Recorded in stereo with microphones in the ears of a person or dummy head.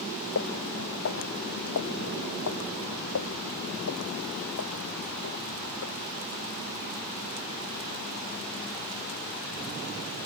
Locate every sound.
0.3 s footsteps: 75° left (ahead or behind); by 5.9 s 60° left (ahead or behind)